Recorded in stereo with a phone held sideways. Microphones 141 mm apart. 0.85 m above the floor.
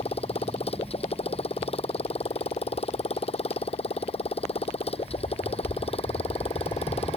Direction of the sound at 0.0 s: 45° left (ahead or behind).